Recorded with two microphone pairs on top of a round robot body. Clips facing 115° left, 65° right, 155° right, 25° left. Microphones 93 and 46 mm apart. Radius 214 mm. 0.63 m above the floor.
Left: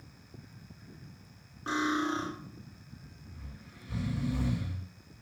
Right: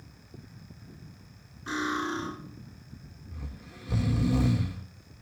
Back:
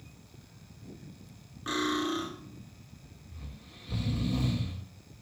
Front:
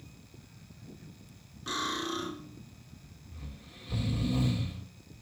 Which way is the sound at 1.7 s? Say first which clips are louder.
Left 1 dB, back 4 dB; 145° left.